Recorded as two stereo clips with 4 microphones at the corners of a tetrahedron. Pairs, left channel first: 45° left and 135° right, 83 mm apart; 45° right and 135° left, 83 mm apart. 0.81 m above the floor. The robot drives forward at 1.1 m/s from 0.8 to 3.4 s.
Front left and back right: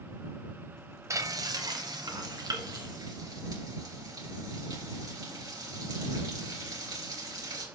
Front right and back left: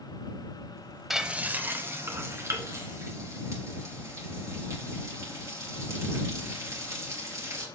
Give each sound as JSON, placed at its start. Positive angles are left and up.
{"t": 1.1, "sound": "frying", "azimuth_deg": -140, "distance_m": 0.7}